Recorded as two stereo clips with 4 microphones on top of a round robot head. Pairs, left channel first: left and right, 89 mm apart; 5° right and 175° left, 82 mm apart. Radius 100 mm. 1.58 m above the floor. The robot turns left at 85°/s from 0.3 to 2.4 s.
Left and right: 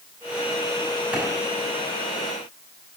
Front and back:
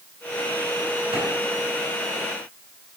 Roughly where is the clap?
Behind.